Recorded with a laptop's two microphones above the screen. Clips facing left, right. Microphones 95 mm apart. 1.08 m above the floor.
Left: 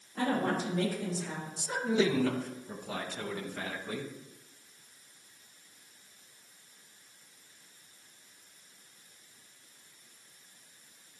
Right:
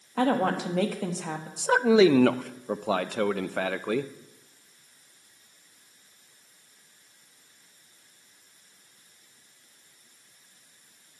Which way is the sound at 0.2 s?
80° right.